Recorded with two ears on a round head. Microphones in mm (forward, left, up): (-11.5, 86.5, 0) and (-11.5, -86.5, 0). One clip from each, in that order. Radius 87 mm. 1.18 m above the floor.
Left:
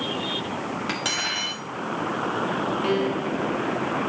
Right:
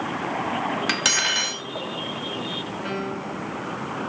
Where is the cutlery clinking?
45° right (ahead or behind), 1.3 m.